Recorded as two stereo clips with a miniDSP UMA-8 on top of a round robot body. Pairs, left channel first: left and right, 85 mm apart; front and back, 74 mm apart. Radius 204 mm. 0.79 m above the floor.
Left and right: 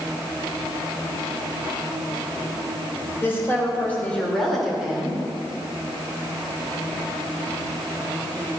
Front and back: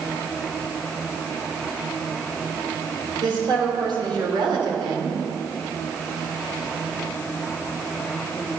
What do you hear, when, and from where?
3.2 s a woman speaking: 150° left, 4.5 m; by 5.2 s 165° right, 3 m